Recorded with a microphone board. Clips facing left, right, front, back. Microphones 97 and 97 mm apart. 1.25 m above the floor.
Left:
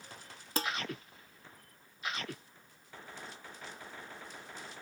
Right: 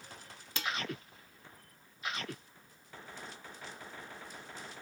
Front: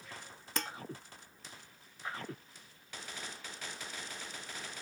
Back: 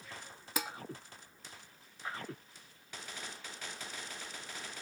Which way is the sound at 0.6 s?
100° left.